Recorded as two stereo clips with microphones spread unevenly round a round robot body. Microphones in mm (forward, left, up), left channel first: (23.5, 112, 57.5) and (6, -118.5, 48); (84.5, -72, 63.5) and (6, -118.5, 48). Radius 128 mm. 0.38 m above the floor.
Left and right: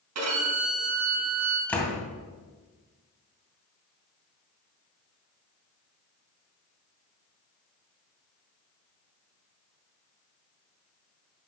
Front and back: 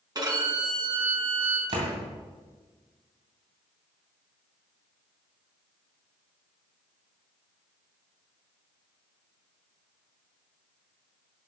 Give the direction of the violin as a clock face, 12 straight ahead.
4 o'clock.